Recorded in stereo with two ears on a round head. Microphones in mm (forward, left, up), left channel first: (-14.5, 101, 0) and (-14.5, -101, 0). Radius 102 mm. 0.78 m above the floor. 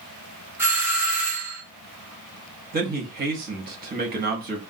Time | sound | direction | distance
0.6 | a doorbell | 10° right (ahead or behind) | 1.0 m
2.7 | a man speaking | 45° right (ahead or behind) | 1.1 m